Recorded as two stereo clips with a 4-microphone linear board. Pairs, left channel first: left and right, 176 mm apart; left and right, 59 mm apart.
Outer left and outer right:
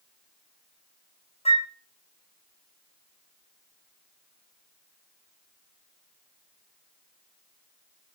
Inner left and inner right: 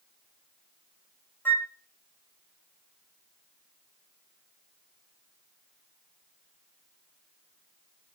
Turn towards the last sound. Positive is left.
turn(degrees=35)  # may be behind; listen again after turning